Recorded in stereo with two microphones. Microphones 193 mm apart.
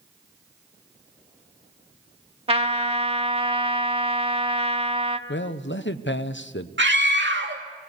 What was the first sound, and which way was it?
A trumpet, 30° right (ahead or behind).